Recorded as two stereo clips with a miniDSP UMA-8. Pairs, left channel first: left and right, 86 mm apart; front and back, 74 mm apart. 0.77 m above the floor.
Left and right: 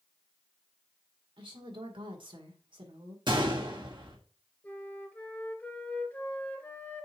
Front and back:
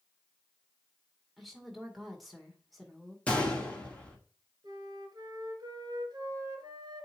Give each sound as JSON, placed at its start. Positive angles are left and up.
{"t": 1.4, "sound": "a woman speaking", "azimuth_deg": -90, "distance_m": 1.9}
{"t": 3.3, "sound": "a gunshot", "azimuth_deg": -70, "distance_m": 1.7}
{"t": 4.6, "sound": "a flute", "azimuth_deg": 160, "distance_m": 1.7}